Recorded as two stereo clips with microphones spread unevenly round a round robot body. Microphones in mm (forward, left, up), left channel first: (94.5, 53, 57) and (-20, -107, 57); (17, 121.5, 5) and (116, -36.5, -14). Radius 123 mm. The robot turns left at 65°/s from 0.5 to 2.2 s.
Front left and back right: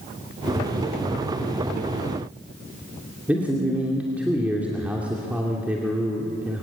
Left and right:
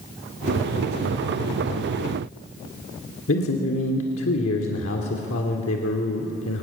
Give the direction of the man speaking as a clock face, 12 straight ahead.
7 o'clock.